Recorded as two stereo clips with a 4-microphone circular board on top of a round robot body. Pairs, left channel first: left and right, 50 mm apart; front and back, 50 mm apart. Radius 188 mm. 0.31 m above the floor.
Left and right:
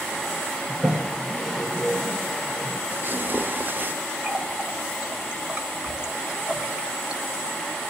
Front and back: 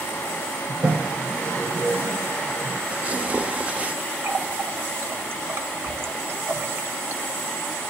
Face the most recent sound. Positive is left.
turn(degrees=-160)